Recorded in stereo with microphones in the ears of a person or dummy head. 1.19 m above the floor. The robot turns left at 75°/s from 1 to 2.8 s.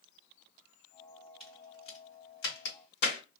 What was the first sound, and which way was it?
A crack, 5° right (ahead or behind).